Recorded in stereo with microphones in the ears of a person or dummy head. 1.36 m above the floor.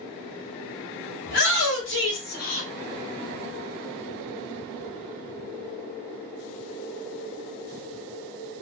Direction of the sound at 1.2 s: 60° left (ahead or behind).